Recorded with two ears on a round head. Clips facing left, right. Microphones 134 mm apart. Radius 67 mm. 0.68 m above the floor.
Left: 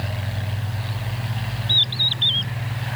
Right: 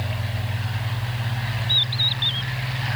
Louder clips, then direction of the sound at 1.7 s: Even; 25° left (ahead or behind).